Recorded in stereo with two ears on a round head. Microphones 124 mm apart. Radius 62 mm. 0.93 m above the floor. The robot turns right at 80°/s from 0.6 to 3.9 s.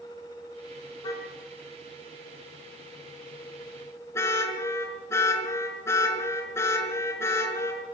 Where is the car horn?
30° left (ahead or behind), 5.5 m; by 7.8 s 20° left (ahead or behind), 5.5 m.